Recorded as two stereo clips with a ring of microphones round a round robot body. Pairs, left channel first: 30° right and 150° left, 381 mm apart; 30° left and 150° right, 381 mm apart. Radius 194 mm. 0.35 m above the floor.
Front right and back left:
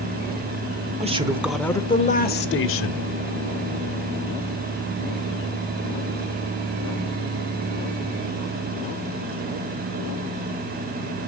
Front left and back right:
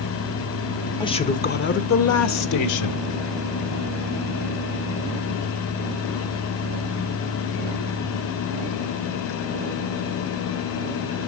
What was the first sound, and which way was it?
A man speaking, 100° left.